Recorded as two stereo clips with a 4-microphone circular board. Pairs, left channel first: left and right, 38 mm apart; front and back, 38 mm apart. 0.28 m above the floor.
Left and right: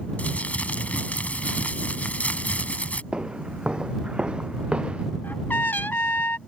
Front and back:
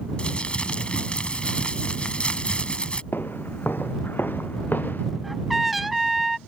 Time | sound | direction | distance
0.2 | crumpling | 55° left | ?
3.1 | footsteps | 25° right | ?
5.2 | a trumpet | 95° left | ?